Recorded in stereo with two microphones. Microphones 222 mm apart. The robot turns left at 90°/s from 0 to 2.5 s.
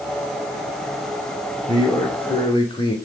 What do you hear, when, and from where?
1.7 s a man speaking: 15° left (ahead or behind), 0.8 m; by 3.0 s 20° left (ahead or behind), 0.8 m